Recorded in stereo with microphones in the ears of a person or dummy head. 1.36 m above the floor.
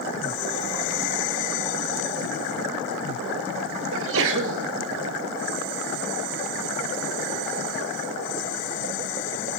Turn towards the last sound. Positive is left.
turn(degrees=-70)  # may be behind; listen again after turning